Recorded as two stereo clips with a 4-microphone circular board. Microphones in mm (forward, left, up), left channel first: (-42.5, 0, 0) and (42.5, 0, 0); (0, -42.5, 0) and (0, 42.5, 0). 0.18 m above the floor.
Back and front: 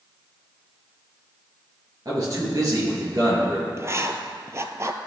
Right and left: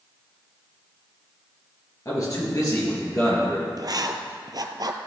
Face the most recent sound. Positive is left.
turn(degrees=55)